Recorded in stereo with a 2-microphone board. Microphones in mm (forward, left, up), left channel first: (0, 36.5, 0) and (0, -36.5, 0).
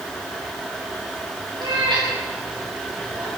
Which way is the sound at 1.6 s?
80° right.